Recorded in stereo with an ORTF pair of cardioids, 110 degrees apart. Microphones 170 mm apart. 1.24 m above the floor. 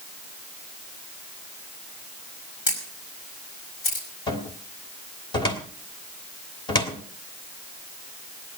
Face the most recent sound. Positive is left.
turn(degrees=30)